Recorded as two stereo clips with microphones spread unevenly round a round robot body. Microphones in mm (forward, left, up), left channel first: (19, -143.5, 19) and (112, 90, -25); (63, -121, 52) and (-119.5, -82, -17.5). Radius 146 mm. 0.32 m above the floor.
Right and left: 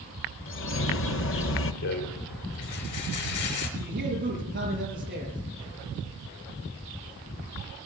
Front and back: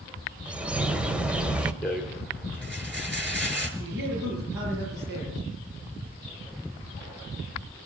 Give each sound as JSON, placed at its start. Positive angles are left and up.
{"t": 0.5, "sound": "a bird", "azimuth_deg": -140, "distance_m": 0.9}
{"t": 1.8, "sound": "a rattle", "azimuth_deg": -100, "distance_m": 4.0}
{"t": 3.8, "sound": "a man speaking", "azimuth_deg": 130, "distance_m": 5.5}